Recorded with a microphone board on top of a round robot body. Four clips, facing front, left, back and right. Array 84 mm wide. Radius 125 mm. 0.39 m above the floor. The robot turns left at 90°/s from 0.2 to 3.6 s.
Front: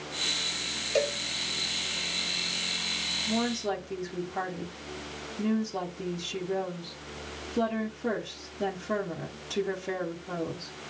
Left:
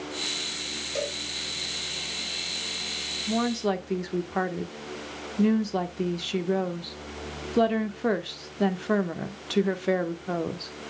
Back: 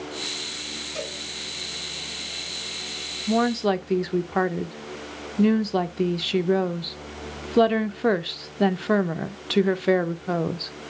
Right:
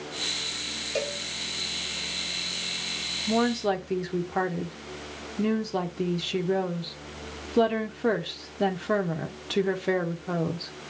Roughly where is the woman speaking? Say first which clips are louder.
Right 2 dB, back 8 dB; behind right.